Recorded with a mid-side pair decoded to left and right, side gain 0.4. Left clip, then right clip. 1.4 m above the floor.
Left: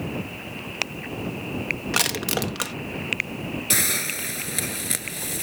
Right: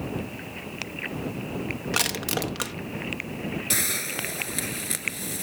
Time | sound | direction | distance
1.9 | crushing | 15° left | ?
3.7 | a hiss | 20° left | ?